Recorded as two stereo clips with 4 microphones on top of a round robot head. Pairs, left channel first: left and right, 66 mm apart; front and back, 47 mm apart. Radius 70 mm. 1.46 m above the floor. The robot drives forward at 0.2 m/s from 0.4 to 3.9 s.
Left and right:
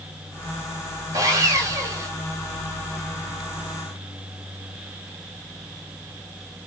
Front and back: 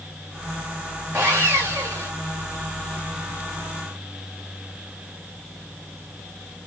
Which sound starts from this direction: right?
Sawing, at 1.1 s.